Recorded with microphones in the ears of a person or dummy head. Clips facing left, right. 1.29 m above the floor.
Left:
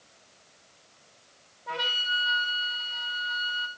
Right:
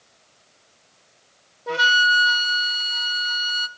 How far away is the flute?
About 0.8 m.